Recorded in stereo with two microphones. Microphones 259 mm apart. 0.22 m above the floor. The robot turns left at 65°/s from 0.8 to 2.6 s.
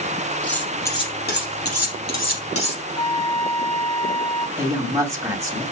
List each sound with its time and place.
0.4 s cutlery clinking: 5° left (ahead or behind), 4.5 m; by 2.8 s 55° left (ahead or behind), 4.5 m
3.0 s a flute: 20° left (ahead or behind), 1.3 m
4.6 s a woman speaking: 10° right (ahead or behind), 1.8 m